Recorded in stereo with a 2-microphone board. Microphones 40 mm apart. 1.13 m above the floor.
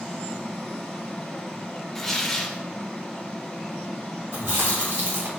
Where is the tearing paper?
5° left (ahead or behind), 1.1 m.